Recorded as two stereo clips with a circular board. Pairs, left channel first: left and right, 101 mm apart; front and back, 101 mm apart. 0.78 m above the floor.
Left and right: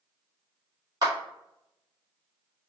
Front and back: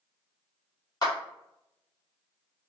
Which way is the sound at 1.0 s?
45° right.